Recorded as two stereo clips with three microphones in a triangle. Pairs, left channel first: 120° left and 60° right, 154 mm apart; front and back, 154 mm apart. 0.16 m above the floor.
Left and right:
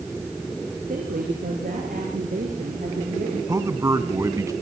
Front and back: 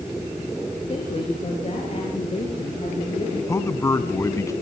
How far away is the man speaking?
About 1.1 m.